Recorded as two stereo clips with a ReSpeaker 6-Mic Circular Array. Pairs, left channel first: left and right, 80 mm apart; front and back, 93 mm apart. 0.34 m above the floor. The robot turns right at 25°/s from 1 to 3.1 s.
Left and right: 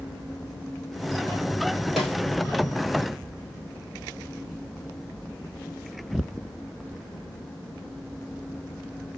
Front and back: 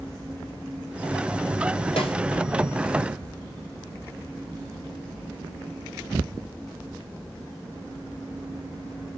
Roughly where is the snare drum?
Ahead.